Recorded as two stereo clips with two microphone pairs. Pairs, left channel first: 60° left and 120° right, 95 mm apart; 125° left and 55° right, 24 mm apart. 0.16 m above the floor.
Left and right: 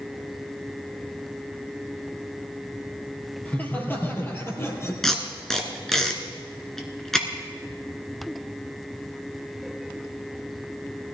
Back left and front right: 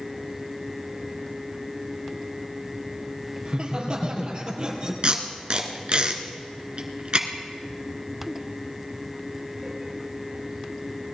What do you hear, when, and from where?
3.5 s laughter: 10° right, 3 m; by 4.9 s 5° left, 3.5 m
5.0 s tape being pulled: 25° right, 1.7 m